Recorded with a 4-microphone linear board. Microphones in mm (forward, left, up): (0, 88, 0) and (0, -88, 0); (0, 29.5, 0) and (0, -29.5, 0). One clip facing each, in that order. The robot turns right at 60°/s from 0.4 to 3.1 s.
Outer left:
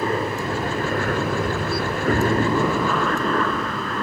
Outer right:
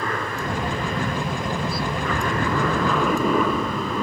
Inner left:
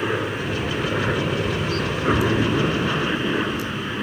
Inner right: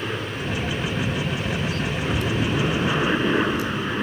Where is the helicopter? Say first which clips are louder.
Outer left 4 dB, inner left 4 dB; 30° left; by 4.0 s 170° right.